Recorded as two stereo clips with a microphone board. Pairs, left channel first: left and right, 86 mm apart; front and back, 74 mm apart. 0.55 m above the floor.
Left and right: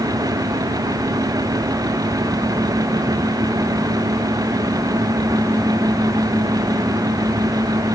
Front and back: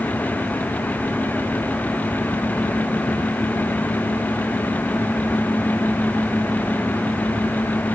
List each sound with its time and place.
Only background noise.